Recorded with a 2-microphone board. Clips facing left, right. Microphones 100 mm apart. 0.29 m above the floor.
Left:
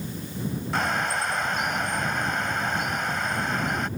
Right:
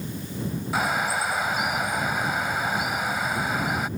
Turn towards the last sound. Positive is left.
turn(degrees=-10)  # may be behind; listen again after turning